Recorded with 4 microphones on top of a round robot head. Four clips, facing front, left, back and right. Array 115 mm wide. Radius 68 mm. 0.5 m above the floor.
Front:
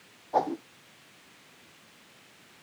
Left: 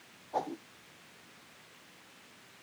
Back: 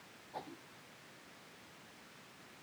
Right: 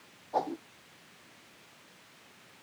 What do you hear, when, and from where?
0.3 s a whoosh: 15° right